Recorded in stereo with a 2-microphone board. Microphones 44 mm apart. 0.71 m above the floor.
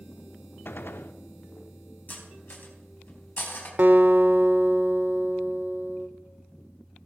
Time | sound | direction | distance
0.7 | a gunshot | 50° left (ahead or behind) | 0.6 m
2.1 | cutlery clinking | 50° left (ahead or behind) | 3.5 m
3.8 | a guitar | 40° right (ahead or behind) | 0.8 m